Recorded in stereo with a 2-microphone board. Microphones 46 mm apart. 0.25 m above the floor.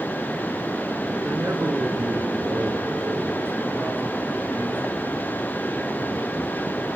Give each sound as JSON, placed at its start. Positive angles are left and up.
{"t": 1.2, "sound": "a man speaking", "side_deg": -65, "distance_m": 3.0}